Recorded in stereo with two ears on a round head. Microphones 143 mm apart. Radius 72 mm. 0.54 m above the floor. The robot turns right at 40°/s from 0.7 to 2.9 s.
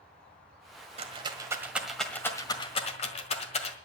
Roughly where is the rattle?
Right.